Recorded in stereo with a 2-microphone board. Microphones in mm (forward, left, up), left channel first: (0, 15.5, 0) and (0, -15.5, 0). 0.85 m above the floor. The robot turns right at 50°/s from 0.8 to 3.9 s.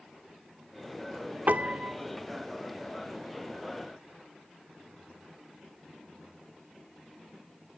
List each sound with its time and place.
1.5 s a piano: 55° right (ahead or behind), 1.3 m; by 2.0 s 25° right (ahead or behind), 1.3 m